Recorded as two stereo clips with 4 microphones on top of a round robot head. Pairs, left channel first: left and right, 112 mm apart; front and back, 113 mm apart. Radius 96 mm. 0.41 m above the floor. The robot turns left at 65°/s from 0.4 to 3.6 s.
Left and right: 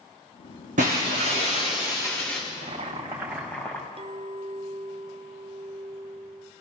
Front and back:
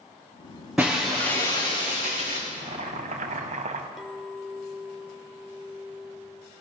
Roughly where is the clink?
Right.